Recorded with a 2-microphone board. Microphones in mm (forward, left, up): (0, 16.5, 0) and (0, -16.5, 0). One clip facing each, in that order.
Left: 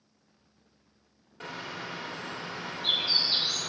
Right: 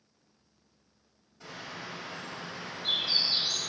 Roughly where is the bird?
Left.